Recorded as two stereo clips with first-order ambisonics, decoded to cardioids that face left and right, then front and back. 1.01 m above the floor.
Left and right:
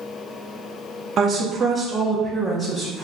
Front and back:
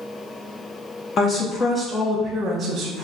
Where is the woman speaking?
40° right, 0.8 m; by 3.0 s 140° left, 0.9 m.